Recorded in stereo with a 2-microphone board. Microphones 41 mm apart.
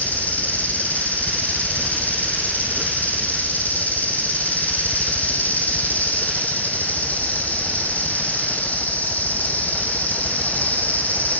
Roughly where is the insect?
Left.